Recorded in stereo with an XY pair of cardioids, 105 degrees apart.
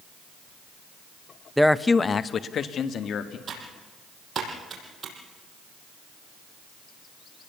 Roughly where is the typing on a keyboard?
Ahead right.